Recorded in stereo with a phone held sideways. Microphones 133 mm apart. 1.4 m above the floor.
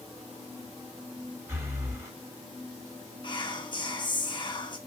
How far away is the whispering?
About 0.8 m.